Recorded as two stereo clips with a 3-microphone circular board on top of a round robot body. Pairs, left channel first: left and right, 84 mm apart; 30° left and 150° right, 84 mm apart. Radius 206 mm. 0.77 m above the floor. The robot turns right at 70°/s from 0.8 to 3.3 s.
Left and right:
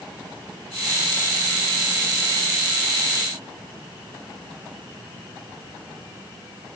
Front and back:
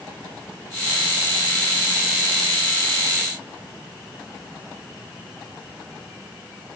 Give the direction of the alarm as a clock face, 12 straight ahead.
No alarm in this recording.